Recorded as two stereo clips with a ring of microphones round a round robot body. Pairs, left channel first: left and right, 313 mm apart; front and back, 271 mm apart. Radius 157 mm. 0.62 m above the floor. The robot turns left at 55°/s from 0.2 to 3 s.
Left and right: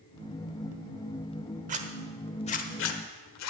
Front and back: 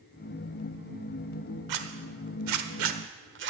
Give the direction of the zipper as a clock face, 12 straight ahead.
5 o'clock.